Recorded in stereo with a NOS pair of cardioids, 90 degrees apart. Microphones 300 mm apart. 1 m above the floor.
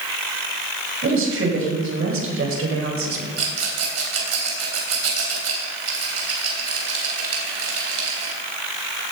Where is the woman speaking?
45° right, 5.5 m; by 3.3 s 50° right, 3.5 m.